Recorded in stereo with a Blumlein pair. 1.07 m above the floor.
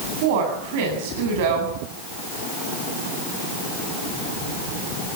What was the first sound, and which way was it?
A woman speaking, 50° right.